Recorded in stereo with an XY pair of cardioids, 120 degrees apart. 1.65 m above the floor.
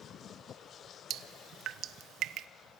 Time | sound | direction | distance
1.1 | dripping | 65° right | 1.2 m